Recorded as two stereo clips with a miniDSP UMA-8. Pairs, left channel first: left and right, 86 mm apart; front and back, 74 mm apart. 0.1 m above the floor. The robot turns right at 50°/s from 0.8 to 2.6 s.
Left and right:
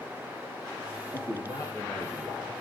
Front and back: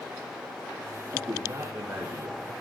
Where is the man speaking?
100° left, 6.5 m; by 2.5 s 170° left, 6.5 m.